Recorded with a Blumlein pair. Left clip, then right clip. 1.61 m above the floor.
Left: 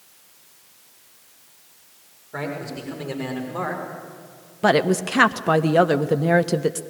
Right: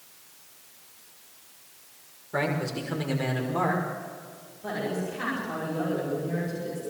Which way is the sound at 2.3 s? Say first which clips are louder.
Right 2 dB; 10° right.